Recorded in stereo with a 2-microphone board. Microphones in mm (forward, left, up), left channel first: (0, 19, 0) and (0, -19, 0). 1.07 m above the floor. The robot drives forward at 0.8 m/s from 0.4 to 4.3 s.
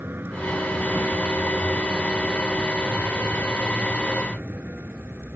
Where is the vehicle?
75° right (ahead or behind); by 5.4 s 65° right (ahead or behind).